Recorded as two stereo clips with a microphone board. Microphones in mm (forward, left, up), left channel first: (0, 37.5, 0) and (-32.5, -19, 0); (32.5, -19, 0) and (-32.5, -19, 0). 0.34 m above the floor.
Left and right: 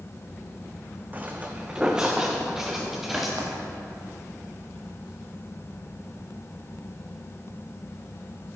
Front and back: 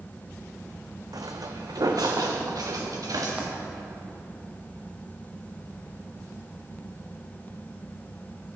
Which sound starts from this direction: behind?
Footsteps, at 1.1 s.